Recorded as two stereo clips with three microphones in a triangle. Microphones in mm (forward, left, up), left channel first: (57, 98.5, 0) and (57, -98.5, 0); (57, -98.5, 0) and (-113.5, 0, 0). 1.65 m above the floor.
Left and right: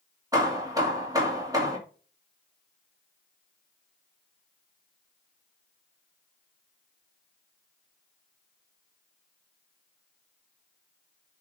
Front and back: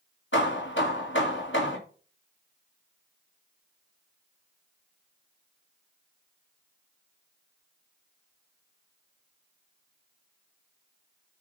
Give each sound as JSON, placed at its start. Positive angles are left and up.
{"t": 0.3, "sound": "hammering", "azimuth_deg": -20, "distance_m": 2.5}